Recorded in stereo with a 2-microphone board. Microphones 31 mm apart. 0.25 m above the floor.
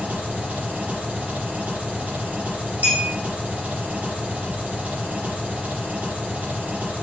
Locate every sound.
0.0 s an engine running: 45° right (ahead or behind), 6 m
2.8 s a clink: 55° right (ahead or behind), 7 m